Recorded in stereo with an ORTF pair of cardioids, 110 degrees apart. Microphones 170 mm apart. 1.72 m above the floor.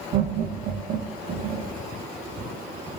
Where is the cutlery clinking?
No cutlery clinking in this recording.